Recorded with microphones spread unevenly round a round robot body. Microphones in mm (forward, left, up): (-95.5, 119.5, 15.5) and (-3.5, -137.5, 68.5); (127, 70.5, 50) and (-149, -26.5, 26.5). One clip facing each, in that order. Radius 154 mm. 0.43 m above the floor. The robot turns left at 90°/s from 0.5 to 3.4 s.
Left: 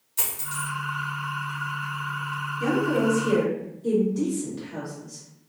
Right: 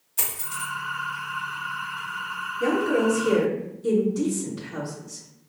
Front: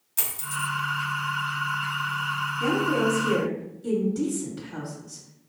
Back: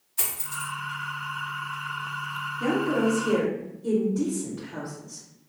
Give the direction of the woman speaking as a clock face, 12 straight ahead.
10 o'clock.